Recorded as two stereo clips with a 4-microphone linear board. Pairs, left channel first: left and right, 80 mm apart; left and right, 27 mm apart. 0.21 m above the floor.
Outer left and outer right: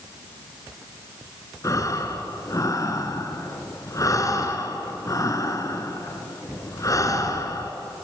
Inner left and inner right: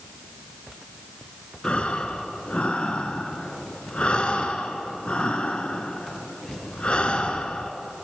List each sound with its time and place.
1.6 s breathing: 40° left (ahead or behind), 2.0 m